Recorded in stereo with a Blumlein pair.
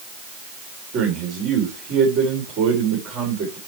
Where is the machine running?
I don't hear a machine running.